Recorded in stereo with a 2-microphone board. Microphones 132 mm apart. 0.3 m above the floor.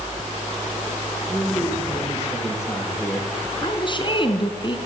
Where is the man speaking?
15° left (ahead or behind), 10 m.